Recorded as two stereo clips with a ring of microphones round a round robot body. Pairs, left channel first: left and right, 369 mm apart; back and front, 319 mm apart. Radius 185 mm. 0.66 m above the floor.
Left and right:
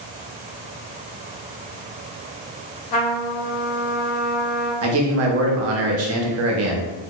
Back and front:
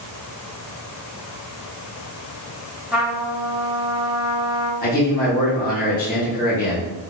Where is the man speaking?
125° right, 0.7 m.